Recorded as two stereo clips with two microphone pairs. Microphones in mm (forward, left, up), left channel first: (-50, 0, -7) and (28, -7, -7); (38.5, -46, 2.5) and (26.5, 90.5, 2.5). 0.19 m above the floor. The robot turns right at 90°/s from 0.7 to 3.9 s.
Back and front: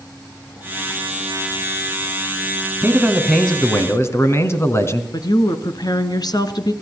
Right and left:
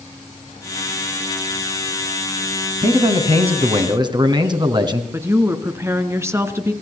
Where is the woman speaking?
160° left, 2.0 m.